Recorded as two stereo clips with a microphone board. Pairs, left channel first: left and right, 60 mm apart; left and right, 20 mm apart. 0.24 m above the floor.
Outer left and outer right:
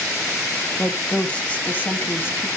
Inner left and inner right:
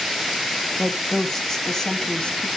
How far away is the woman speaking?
About 1.3 m.